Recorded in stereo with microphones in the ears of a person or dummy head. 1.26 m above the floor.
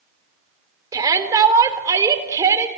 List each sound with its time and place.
0.9 s a shout: 20° right (ahead or behind), 4 m